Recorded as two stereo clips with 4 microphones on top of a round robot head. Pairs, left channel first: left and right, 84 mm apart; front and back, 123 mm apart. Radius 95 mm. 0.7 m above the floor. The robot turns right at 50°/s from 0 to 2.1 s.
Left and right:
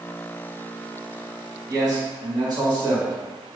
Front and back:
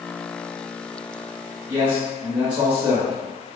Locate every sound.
1.7 s a man speaking: 125° right, 1.8 m; by 3.6 s 100° right, 1.8 m